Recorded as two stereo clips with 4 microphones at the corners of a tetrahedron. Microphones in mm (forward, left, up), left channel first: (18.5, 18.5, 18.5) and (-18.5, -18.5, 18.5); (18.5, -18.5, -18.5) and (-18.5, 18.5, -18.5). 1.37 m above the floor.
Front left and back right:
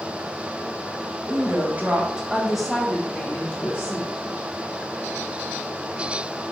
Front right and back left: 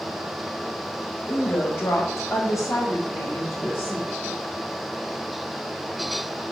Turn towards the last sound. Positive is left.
turn(degrees=0)